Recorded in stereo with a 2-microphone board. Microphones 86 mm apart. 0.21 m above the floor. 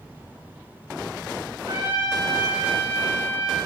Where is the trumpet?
60° right (ahead or behind), 7 m.